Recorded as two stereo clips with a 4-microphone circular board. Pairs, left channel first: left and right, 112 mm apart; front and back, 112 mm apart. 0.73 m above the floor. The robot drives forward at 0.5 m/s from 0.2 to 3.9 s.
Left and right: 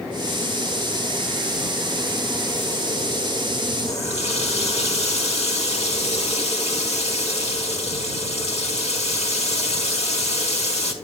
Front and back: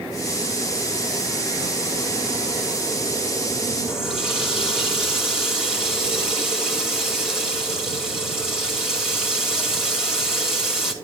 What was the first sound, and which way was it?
A running tap, 95° left.